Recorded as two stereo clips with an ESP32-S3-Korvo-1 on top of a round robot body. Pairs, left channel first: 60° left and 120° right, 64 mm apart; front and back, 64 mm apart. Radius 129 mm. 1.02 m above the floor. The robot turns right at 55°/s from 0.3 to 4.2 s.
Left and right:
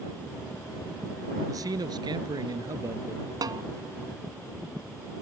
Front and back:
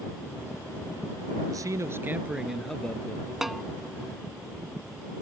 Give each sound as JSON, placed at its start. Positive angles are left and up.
{"t": 1.5, "sound": "a man speaking", "azimuth_deg": -150}
{"t": 3.4, "sound": "a snare drum", "azimuth_deg": -95}